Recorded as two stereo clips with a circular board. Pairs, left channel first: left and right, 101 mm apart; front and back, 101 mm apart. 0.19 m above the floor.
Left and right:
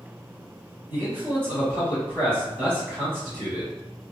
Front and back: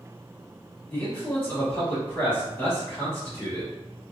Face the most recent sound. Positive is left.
turn(degrees=-50)